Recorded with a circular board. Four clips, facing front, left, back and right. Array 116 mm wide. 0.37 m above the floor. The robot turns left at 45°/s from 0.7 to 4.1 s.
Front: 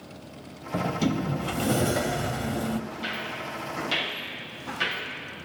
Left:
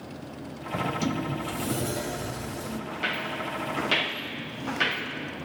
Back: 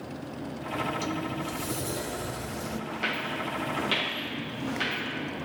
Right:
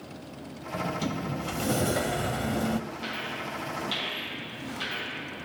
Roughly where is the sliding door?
Ahead.